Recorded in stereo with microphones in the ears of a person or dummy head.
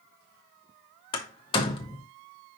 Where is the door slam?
30° left (ahead or behind), 1.4 m.